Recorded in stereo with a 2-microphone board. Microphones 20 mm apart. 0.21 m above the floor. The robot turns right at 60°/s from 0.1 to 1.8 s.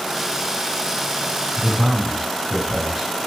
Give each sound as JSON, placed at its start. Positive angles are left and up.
{"t": 1.6, "sound": "a man speaking", "side_deg": 10, "distance_m": 2.5}